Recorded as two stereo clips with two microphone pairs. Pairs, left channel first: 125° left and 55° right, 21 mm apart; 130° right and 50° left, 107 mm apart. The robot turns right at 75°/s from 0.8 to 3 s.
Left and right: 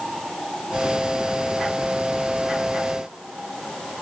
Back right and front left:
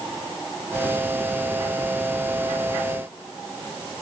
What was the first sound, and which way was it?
Only background noise.